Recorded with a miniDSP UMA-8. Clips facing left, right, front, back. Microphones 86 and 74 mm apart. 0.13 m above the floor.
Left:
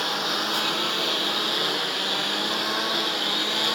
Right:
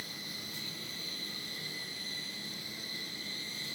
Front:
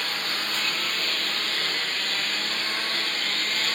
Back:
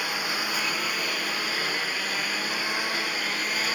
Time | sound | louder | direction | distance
0.0 | a lawn mower | left 20 dB, back 1 dB | 100° left | ?